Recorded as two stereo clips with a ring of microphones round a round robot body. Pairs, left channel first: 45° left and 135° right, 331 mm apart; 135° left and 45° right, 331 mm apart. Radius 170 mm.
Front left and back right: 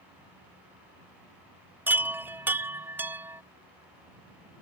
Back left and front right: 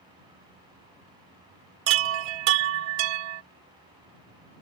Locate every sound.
1.9 s a chime: 50° right